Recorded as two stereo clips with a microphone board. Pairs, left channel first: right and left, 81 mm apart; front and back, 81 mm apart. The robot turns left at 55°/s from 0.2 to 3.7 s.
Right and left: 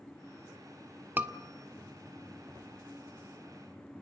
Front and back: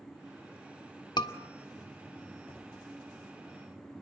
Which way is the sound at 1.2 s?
25° left.